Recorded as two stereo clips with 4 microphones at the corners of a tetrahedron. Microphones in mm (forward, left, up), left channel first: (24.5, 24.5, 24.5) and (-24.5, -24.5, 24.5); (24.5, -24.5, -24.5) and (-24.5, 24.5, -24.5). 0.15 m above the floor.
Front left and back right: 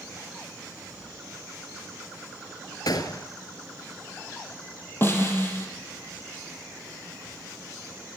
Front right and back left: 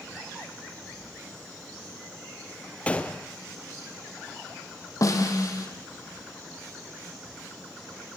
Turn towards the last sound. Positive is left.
turn(degrees=-10)